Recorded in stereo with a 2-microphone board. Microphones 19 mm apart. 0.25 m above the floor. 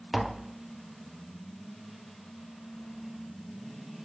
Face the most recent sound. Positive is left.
turn(degrees=-10)  # may be behind; listen again after turning